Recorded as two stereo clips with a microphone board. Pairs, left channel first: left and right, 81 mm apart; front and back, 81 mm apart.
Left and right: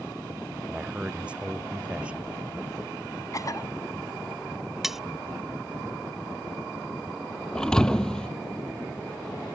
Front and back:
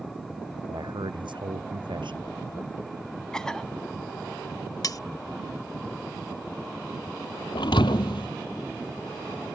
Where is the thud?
10° left.